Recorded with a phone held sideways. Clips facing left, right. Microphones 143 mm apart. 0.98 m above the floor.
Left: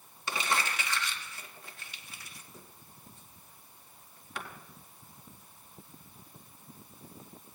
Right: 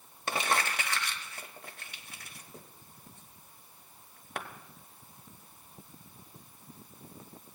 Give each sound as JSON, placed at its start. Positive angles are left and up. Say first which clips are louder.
{"t": 0.3, "sound": "crumpling", "louder": "right 2 dB", "side_deg": -55, "distance_m": 1.0}